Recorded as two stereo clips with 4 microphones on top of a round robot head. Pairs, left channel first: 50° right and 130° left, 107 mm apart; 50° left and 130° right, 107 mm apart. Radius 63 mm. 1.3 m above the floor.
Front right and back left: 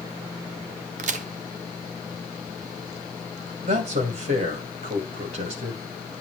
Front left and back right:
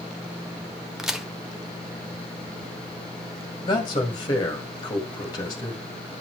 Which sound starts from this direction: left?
A man speaking, at 3.6 s.